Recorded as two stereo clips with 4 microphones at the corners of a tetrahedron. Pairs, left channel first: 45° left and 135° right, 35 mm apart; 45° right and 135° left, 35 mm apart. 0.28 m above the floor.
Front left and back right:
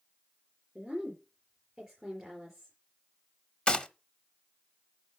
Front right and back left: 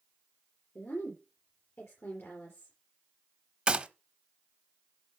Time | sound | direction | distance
0.8 | a woman speaking | 50° right | 5.5 m
3.7 | a gunshot | 95° left | 0.8 m